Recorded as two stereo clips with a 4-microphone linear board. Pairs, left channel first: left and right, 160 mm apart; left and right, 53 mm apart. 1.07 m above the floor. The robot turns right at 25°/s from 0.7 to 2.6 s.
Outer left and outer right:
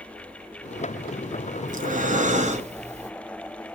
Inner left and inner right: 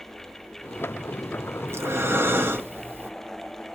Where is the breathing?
50° right (ahead or behind), 0.8 m; by 3.1 s 40° right (ahead or behind), 0.8 m.